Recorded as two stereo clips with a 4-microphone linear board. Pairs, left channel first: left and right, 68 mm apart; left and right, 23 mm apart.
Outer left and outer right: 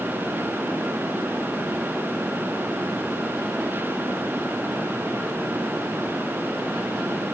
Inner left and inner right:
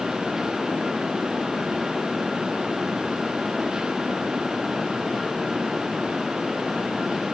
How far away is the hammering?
I don't hear hammering.